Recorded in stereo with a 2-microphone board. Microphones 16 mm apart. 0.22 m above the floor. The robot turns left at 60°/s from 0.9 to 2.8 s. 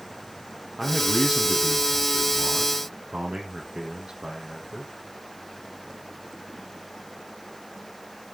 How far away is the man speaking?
About 7 m.